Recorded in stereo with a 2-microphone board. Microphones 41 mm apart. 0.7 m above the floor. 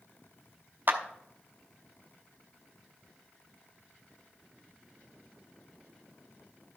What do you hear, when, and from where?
0.9 s a clap: 45° right (ahead or behind), 1.0 m